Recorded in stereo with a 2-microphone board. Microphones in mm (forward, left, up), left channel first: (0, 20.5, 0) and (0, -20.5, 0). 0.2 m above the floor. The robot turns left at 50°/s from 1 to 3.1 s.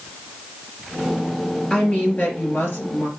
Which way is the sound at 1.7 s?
160° left.